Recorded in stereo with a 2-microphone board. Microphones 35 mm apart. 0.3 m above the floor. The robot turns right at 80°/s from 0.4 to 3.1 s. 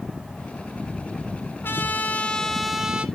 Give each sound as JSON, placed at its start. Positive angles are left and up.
{"t": 1.6, "sound": "a trumpet", "azimuth_deg": 95, "distance_m": 1.1}